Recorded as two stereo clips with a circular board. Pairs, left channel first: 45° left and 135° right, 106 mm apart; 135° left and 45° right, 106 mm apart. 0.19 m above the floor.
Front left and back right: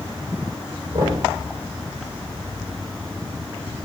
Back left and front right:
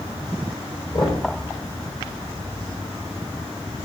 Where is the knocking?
175° left, 4.5 m.